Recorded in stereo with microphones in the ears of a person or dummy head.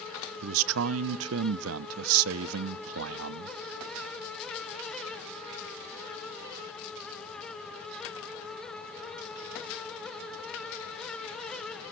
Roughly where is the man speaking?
Right.